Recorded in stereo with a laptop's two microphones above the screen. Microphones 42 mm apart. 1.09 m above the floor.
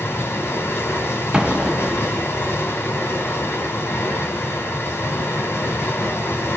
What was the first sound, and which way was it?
Running water, 65° left (ahead or behind).